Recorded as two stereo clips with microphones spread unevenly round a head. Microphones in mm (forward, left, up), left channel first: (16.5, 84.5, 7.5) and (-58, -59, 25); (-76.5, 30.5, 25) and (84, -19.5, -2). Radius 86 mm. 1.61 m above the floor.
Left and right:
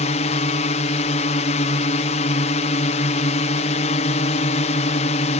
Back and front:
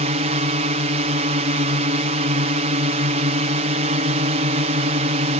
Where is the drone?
20° left.